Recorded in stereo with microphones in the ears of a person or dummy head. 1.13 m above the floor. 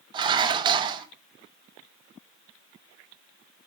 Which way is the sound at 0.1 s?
25° right (ahead or behind).